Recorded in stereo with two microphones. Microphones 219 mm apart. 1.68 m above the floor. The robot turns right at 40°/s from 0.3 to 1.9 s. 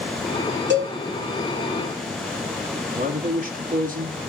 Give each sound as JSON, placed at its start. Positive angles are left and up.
{"t": 0.7, "sound": "a cowbell", "side_deg": -55, "distance_m": 3.0}
{"t": 3.0, "sound": "a man speaking", "side_deg": -40, "distance_m": 2.5}